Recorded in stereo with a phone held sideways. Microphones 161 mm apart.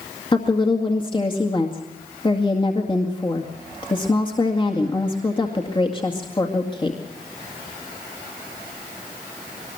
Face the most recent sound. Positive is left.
turn(degrees=30)  # may be behind; listen again after turning